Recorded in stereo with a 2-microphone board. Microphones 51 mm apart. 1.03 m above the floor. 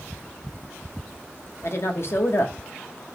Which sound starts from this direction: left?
A woman speaking, at 1.6 s.